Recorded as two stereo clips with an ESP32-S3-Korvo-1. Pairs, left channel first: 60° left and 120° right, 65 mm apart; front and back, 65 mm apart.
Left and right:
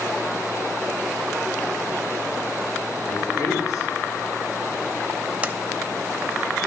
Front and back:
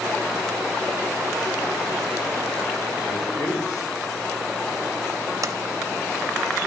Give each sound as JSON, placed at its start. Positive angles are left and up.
{"t": 3.1, "sound": "a man speaking", "azimuth_deg": 35, "distance_m": 2.0}
{"t": 5.4, "sound": "a sliding door", "azimuth_deg": 175, "distance_m": 0.5}